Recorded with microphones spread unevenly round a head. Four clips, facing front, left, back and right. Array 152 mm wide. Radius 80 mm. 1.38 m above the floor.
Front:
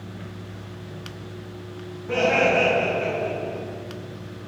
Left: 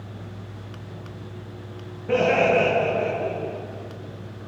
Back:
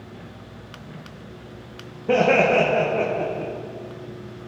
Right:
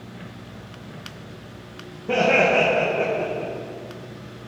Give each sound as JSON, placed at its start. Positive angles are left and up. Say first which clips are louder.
{"t": 2.1, "sound": "laughter", "louder": "even, back 3 dB", "azimuth_deg": -170, "distance_m": 1.9}